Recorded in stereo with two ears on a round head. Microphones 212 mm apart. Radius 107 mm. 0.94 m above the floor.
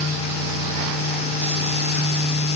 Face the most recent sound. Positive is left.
No sound to turn to.